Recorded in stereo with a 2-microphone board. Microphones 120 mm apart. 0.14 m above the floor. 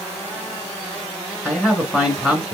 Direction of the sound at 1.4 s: 5° right (ahead or behind).